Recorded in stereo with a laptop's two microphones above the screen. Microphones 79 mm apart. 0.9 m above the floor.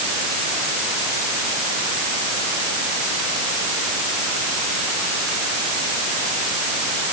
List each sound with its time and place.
Only background noise.